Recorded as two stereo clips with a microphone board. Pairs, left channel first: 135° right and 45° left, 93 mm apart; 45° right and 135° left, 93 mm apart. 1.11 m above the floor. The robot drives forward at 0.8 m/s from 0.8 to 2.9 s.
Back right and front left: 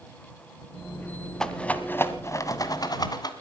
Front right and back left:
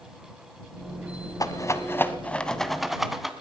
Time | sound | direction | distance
1.4 | a rattle | 55° right | 1.2 m